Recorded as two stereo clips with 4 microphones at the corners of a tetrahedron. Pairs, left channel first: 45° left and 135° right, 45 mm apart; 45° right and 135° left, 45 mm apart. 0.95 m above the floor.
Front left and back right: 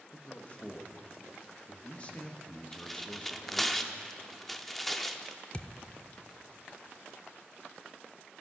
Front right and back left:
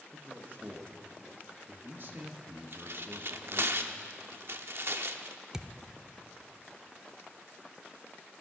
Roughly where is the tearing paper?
Behind left.